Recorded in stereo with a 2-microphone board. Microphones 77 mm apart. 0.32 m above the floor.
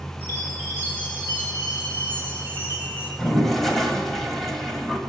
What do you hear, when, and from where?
0.2 s a chime: 30° right (ahead or behind), 5 m
3.2 s a toilet flushing: 5° left (ahead or behind), 1.6 m